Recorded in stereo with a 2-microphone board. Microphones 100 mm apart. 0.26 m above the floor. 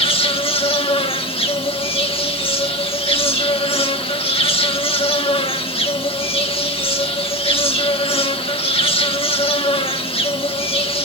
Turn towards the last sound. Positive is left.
turn(degrees=70)  # may be behind; listen again after turning